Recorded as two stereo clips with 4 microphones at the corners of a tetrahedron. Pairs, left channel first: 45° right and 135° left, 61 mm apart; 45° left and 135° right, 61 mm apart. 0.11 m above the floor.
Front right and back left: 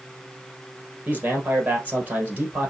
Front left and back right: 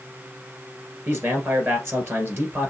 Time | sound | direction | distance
1.1 | a man speaking | 170° right | 2 m